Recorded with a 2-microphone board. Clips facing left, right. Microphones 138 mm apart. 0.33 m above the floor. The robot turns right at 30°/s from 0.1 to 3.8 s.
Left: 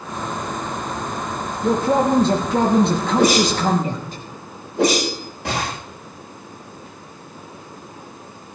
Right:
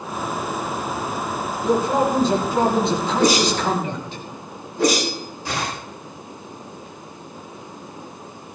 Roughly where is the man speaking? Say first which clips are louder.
Left 2 dB; ahead left.